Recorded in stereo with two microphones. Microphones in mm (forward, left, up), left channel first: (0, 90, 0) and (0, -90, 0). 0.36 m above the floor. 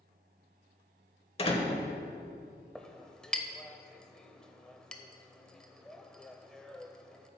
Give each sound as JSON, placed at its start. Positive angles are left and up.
{"t": 1.4, "sound": "a door slam", "side_deg": 35, "distance_m": 1.1}
{"t": 2.8, "sound": "a clink", "side_deg": 5, "distance_m": 0.6}